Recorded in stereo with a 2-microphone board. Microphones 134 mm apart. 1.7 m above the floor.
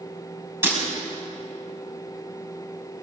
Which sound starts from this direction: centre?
Breaking glass, at 0.6 s.